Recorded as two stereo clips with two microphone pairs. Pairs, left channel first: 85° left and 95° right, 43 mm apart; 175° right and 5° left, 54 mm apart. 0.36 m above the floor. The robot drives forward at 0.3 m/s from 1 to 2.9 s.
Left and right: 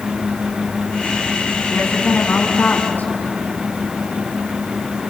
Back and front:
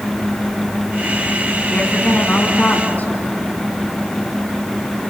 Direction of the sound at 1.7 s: 120° left.